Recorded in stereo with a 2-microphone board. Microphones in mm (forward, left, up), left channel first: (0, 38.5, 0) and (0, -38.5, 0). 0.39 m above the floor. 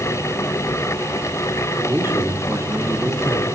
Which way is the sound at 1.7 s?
35° right (ahead or behind).